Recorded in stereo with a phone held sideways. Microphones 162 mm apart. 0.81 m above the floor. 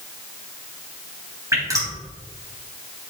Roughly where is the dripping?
Centre.